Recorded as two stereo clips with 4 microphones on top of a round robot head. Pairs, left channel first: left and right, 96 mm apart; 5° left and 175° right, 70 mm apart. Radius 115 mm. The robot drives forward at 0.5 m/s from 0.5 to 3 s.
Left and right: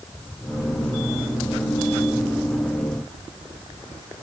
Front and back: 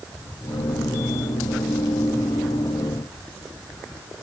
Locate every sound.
Only background noise.